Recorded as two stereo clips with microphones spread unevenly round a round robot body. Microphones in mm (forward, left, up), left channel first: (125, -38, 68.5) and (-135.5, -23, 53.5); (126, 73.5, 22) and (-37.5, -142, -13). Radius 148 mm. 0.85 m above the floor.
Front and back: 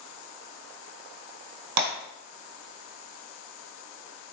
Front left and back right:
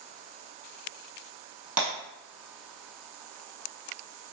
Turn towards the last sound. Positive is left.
turn(degrees=165)